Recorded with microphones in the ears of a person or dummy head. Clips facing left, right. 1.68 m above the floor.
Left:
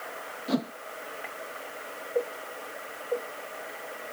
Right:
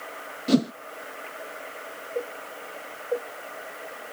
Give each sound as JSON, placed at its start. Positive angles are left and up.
{"t": 0.5, "sound": "a whoosh", "side_deg": -35}